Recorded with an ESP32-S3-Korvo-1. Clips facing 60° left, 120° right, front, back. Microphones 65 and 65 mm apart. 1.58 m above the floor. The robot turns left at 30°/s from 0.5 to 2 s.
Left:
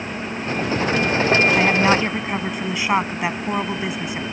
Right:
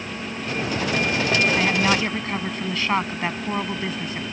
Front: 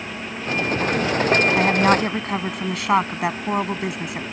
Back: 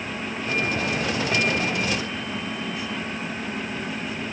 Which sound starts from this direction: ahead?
A woman speaking, at 1.6 s.